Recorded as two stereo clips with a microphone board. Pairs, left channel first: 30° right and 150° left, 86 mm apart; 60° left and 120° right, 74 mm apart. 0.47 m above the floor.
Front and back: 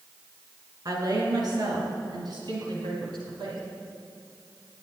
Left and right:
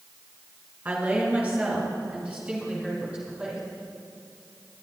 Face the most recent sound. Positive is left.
turn(degrees=165)